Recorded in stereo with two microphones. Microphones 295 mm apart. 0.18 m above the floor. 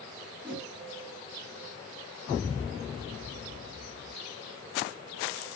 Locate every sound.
0.4 s a whoosh: centre (ahead or behind), 3 m